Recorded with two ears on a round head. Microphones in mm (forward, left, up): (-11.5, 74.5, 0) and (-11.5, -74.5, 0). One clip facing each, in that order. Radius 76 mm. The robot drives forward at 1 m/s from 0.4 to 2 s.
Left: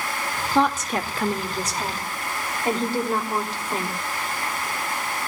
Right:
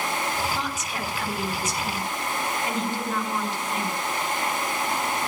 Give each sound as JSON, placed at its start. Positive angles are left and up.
{"t": 0.6, "sound": "a woman speaking", "side_deg": 55, "distance_m": 2.0}